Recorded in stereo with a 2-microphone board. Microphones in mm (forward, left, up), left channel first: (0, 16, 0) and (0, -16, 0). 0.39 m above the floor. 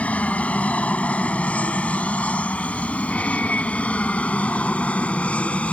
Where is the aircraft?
45° left (ahead or behind); by 5.7 s 40° left (ahead or behind).